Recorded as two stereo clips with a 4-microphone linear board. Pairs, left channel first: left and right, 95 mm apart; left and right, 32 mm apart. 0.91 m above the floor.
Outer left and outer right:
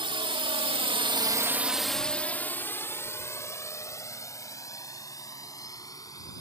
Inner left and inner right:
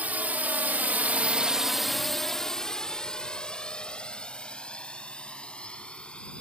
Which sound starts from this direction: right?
A drone, at 0.0 s.